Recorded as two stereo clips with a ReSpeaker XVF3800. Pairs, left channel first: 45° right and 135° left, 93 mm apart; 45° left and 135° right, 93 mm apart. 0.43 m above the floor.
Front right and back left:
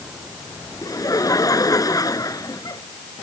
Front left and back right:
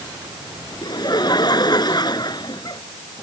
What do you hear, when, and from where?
0.8 s laughter: 5° left